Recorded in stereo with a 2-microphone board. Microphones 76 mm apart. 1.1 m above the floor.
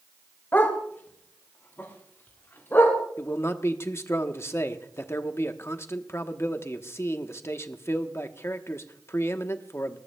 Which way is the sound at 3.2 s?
35° left (ahead or behind).